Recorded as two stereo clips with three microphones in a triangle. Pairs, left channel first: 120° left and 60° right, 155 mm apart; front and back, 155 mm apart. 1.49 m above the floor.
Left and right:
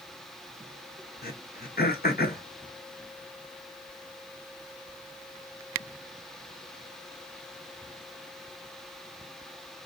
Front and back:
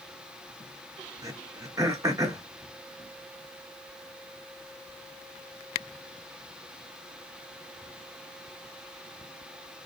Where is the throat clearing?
115° left, 0.8 m.